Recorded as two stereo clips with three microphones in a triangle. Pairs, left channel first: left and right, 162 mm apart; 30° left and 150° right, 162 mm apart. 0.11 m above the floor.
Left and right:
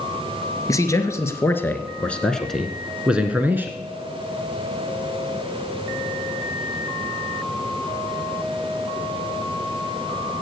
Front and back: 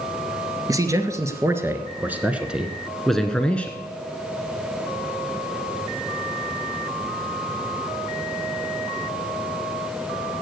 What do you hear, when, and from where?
0.7 s a man speaking: 150° left, 1.6 m; by 3.8 s 35° right, 1.2 m